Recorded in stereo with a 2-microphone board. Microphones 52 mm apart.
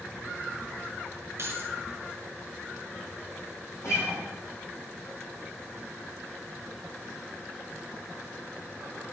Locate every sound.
1.4 s keys jangling: 55° right (ahead or behind), 2.5 m
3.8 s a guitar: 75° left (ahead or behind), 5 m